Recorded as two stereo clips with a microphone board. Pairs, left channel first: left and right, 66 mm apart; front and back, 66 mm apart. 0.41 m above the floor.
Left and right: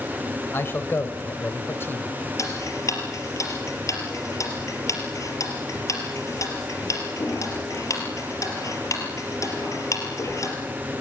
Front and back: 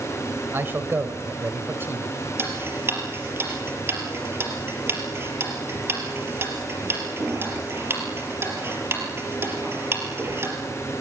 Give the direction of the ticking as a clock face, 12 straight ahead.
8 o'clock.